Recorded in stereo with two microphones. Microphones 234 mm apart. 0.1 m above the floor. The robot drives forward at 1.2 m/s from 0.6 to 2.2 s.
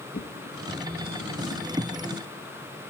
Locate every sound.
0.1 s a drawer: 40° left (ahead or behind), 1.8 m; by 1.6 s 55° left (ahead or behind), 1.4 m